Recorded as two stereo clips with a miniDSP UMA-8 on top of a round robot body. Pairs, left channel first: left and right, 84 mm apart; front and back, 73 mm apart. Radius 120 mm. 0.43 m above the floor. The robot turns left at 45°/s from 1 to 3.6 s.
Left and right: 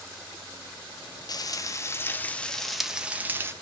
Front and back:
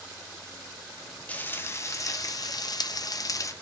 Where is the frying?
65° left, 0.6 m; by 3.5 s 35° right, 0.6 m.